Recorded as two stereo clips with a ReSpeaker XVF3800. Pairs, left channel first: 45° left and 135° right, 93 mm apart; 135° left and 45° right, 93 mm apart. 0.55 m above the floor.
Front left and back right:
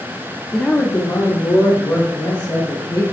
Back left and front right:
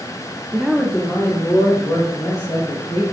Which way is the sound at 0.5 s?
30° right.